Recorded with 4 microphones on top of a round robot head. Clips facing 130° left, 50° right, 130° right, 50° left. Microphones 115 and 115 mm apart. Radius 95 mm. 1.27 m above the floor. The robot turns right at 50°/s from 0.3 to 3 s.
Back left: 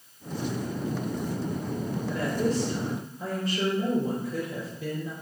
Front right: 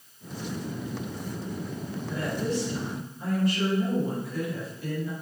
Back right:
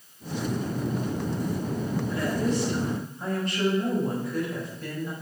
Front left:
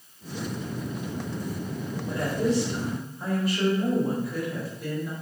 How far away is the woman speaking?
About 4.5 m.